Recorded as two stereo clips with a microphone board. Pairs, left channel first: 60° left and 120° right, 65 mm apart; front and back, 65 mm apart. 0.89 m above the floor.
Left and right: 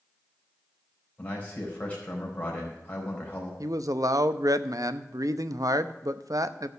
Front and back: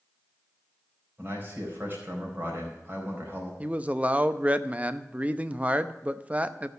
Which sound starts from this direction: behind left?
A man speaking, at 1.2 s.